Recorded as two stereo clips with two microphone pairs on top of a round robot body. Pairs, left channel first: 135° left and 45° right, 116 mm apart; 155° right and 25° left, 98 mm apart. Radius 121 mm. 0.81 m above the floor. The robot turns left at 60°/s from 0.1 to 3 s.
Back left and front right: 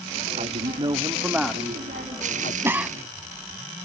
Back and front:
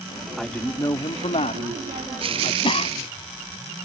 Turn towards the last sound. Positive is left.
turn(degrees=-135)